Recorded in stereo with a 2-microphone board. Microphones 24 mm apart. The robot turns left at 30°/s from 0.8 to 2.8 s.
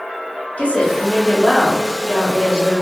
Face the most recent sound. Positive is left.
turn(degrees=50)